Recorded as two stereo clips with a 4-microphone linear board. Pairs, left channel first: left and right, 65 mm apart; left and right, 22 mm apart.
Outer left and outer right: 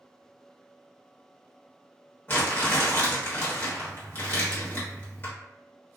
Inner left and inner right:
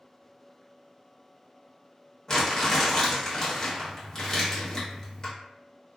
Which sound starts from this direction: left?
Crumpling, at 2.3 s.